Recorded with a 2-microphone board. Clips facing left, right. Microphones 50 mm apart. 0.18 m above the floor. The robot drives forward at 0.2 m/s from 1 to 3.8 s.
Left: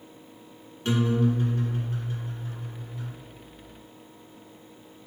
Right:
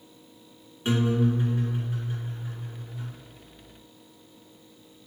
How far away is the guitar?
About 1.1 m.